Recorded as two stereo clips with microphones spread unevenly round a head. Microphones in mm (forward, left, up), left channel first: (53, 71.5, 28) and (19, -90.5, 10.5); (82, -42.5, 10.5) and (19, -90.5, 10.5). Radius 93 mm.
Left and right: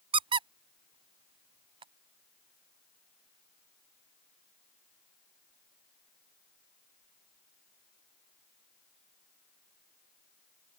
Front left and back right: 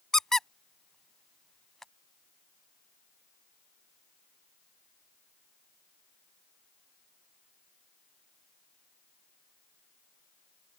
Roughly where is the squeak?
Ahead right.